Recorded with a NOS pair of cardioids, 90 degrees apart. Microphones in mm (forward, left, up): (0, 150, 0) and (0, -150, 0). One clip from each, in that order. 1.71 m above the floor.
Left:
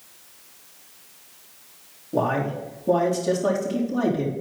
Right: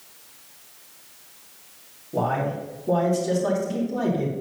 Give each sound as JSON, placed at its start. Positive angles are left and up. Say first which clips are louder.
{"t": 2.1, "sound": "a man speaking", "louder": "left 1 dB", "azimuth_deg": 30, "distance_m": 3.5}